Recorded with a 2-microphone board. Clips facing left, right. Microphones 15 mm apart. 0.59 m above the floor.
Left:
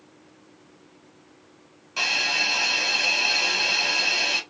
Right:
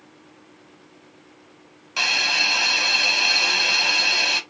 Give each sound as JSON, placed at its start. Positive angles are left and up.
{"t": 2.0, "sound": "a hiss", "side_deg": -20, "distance_m": 0.9}